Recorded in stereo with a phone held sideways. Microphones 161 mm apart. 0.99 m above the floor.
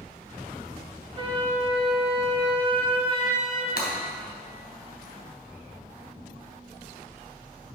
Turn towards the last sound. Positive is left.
turn(degrees=80)